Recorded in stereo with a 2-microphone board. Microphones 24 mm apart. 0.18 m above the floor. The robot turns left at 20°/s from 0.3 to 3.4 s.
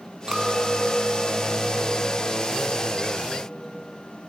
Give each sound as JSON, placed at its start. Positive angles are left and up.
{"t": 0.3, "sound": "a clink", "azimuth_deg": -130, "distance_m": 0.8}